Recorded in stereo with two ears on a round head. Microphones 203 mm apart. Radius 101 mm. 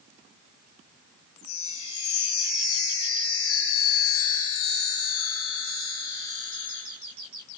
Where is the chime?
75° left (ahead or behind), 5.5 m.